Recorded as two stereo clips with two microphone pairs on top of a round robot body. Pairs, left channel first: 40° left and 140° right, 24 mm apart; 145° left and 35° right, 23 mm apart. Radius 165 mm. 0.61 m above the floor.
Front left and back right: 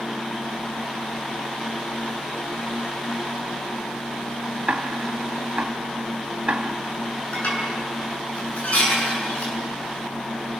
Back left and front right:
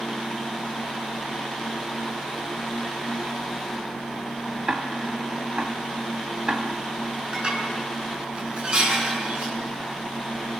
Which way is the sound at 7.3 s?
10° left.